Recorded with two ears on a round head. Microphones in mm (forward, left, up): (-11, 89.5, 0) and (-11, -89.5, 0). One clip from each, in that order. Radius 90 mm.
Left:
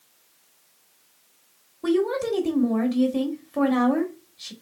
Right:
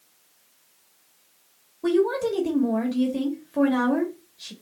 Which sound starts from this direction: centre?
A woman speaking, at 1.8 s.